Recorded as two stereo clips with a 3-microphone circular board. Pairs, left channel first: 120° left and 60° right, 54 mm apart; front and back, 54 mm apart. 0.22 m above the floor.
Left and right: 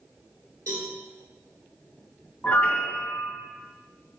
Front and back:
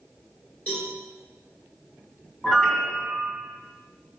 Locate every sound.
0.7 s a cowbell: 60° right, 1.7 m
2.4 s a piano: 70° left, 0.7 m